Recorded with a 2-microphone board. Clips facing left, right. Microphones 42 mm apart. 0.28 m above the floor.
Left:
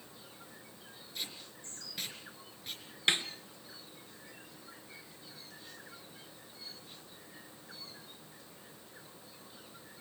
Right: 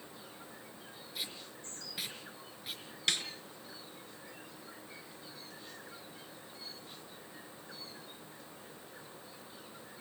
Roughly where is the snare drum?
Left.